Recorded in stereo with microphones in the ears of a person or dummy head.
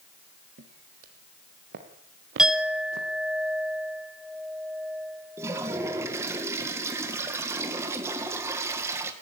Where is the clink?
5° right (ahead or behind), 1.1 m.